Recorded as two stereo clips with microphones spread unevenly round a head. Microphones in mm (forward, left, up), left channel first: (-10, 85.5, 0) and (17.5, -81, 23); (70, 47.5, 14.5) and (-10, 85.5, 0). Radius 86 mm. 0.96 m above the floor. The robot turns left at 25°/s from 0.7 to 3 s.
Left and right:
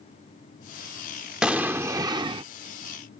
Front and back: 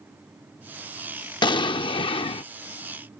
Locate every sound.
1.4 s an explosion: straight ahead; by 2.5 s 25° right